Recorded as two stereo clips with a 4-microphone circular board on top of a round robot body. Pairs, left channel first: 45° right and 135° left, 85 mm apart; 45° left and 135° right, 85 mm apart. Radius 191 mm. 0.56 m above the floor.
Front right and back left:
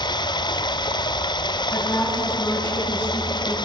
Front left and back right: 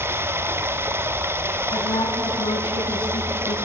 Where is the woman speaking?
20° left, 6 m.